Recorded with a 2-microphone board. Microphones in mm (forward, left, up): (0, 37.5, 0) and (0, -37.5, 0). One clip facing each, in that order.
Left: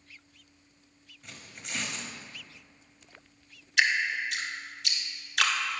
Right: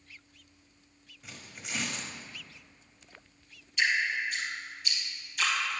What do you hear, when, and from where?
1.2 s tearing paper: centre (ahead or behind), 1.2 m
3.8 s dripping: 80° left, 1.4 m